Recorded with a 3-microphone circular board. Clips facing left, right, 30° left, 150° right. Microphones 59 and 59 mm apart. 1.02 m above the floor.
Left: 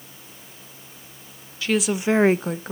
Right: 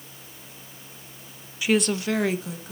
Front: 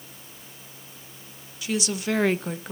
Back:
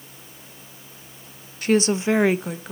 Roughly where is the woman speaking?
Behind.